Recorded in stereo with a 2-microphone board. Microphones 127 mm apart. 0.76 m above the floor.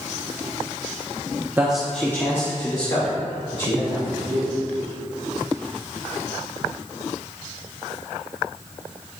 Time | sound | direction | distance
1.6 | a man speaking | 15° right (ahead or behind) | 1.0 m